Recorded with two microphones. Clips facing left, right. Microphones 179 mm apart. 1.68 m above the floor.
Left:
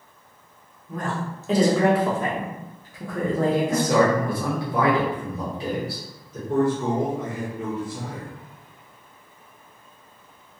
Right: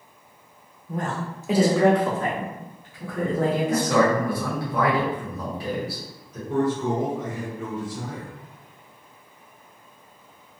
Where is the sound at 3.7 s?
25° left (ahead or behind), 1.1 m.